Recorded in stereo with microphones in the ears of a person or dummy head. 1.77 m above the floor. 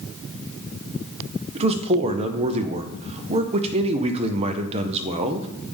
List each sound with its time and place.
1.6 s a man speaking: 35° right (ahead or behind), 0.8 m